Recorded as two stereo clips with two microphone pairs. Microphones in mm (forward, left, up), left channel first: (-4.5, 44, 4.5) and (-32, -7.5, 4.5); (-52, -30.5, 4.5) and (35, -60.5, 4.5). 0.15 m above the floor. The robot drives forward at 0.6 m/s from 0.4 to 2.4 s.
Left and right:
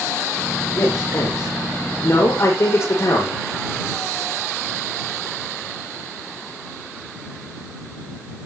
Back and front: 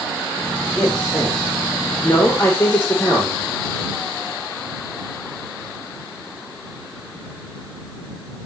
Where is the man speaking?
85° left, 7 m; by 3.4 s 95° left, 7 m.